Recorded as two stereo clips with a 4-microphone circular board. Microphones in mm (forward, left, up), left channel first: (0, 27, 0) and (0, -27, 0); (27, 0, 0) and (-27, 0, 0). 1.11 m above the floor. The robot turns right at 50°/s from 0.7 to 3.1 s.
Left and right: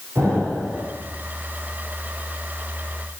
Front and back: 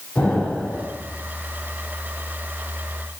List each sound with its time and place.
0.1 s an explosion: 55° right, 3 m; by 0.8 s 45° right, 3 m